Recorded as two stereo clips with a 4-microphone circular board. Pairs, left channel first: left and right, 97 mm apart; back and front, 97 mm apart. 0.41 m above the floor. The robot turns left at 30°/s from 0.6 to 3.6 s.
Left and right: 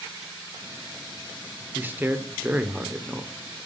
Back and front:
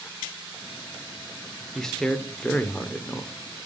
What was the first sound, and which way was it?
A man speaking, 100° right.